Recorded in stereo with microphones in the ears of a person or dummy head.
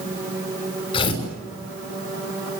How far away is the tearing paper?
About 6 m.